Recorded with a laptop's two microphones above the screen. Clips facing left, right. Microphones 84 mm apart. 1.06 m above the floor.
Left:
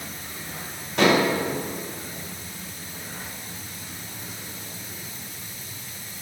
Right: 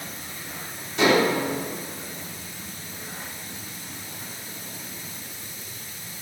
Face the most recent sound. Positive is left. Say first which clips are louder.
# even
turn(degrees=65)  # may be behind; listen again after turning